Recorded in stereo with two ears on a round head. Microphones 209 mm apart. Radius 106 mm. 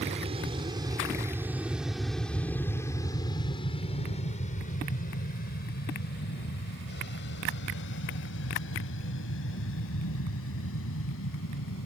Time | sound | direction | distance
0.0 | an aircraft | 30° right (ahead or behind) | ?